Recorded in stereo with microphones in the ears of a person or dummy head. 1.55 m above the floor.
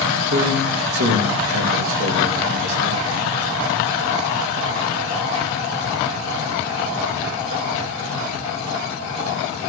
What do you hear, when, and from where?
0.3 s a man speaking: 70° right (ahead or behind), 2.5 m; by 3.0 s 60° right (ahead or behind), 3 m